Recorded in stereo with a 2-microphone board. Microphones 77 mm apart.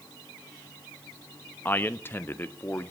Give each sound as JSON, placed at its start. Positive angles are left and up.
{"t": 1.6, "sound": "a man speaking", "side_deg": 25, "distance_m": 0.7}